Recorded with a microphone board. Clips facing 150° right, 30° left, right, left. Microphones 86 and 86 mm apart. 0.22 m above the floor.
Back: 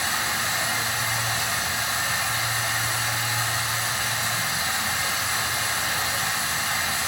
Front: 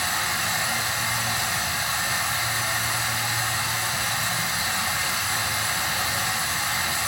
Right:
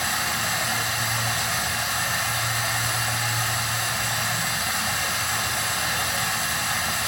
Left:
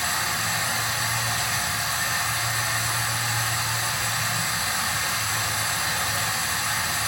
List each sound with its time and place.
0.0 s running water: 80° right, 1.3 m